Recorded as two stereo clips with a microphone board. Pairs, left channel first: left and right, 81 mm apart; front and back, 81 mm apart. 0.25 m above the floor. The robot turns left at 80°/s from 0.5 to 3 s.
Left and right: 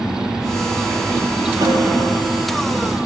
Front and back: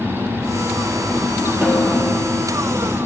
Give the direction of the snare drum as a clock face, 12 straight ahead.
4 o'clock.